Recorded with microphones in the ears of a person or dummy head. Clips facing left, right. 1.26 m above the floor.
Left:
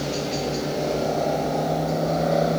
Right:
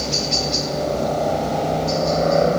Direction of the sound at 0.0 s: 60° right (ahead or behind).